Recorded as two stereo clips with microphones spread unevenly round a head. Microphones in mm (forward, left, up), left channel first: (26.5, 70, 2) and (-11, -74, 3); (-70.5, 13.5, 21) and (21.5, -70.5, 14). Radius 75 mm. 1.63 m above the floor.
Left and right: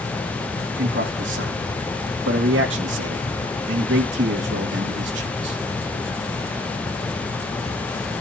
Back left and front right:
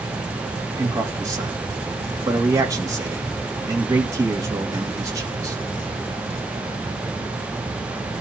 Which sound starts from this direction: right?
A man speaking, at 0.8 s.